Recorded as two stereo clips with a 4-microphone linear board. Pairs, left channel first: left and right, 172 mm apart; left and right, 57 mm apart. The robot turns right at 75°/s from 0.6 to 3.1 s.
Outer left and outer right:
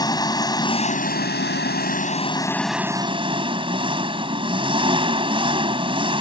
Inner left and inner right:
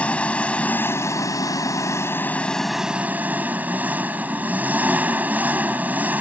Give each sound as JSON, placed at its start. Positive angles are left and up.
{"t": 0.0, "sound": "an engine running", "azimuth_deg": 25}